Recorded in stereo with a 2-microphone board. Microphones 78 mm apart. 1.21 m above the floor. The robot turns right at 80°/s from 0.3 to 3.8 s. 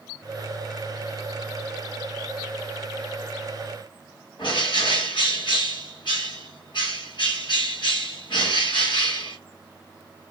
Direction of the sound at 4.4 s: 75° left (ahead or behind).